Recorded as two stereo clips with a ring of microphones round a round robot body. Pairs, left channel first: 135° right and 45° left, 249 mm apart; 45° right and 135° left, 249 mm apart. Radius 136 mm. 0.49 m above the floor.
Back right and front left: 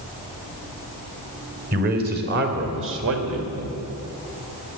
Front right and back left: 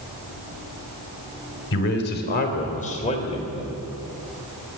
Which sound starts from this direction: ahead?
A man speaking, at 1.7 s.